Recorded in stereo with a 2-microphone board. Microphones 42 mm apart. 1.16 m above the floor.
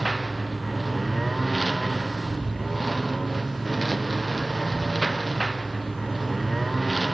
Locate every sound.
0.0 s a lawn mower: centre (ahead or behind)